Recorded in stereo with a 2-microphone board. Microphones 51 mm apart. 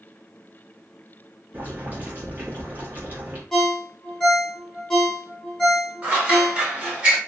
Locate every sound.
1.5 s boiling: 30° right (ahead or behind), 1.2 m
3.5 s a ringtone: 10° left (ahead or behind), 0.9 m
6.0 s scissors: 20° right (ahead or behind), 1.2 m